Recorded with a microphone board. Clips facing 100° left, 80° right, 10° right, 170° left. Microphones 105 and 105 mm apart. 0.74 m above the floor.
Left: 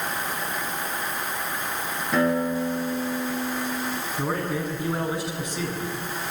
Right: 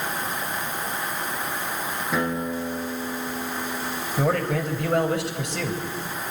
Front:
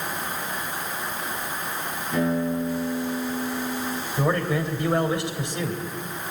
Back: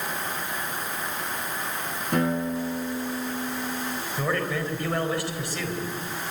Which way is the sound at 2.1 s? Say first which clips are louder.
Left 5 dB, front 1 dB; 165° right.